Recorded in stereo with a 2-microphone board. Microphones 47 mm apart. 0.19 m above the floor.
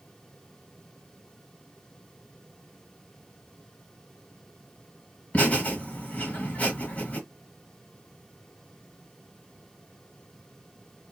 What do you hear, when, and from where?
5.3 s laughter: 30° left (ahead or behind), 1.5 m